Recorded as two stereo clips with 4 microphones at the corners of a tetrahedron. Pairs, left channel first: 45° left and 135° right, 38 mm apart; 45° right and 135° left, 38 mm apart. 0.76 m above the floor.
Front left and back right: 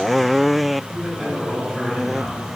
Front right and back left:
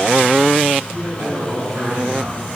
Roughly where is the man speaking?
Behind left.